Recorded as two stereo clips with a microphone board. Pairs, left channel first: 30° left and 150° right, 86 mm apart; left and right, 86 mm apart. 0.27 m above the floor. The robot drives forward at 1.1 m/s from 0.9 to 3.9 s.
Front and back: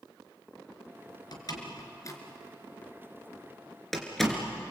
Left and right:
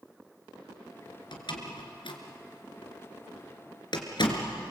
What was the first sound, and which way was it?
A door slam, 65° left.